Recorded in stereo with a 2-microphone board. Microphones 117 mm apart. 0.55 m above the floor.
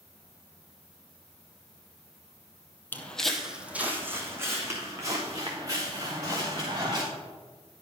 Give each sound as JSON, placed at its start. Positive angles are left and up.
{"t": 2.9, "sound": "footsteps", "side_deg": 20, "distance_m": 1.1}